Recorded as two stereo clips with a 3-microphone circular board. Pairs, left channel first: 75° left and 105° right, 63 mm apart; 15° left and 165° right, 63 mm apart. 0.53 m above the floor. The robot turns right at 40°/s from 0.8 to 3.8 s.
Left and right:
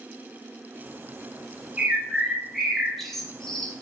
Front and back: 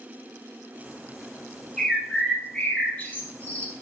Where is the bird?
60° right, 1.5 m; by 3.8 s 25° left, 1.5 m.